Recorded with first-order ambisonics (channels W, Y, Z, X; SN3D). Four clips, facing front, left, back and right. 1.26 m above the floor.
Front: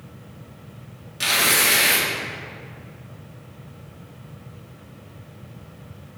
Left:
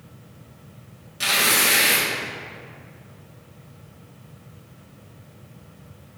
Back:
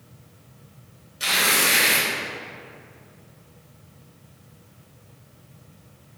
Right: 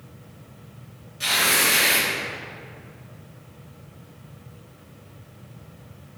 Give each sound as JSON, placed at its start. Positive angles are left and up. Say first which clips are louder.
{"t": 1.2, "sound": "tearing paper", "louder": "left 1 dB, front 1 dB", "azimuth_deg": 30, "distance_m": 1.7}